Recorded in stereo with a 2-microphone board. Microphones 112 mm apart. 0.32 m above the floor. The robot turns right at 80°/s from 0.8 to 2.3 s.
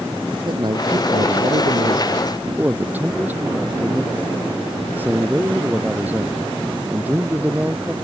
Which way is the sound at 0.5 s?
135° right.